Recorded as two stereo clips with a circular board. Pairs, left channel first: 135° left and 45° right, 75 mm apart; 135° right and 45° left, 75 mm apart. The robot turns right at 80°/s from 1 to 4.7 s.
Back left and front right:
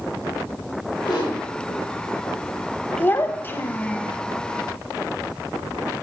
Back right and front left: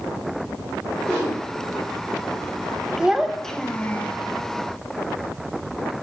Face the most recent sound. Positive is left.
turn(degrees=-115)